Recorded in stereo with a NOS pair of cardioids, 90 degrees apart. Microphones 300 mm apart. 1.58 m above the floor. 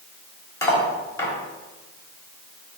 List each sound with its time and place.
0.6 s cutlery clinking: 10° left, 2.5 m